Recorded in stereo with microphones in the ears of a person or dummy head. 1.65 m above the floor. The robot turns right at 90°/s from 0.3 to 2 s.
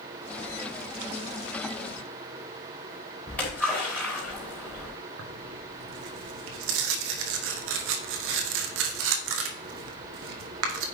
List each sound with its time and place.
3.3 s a splash: 5° left (ahead or behind), 4 m
5.2 s tearing paper: 85° right, 1.4 m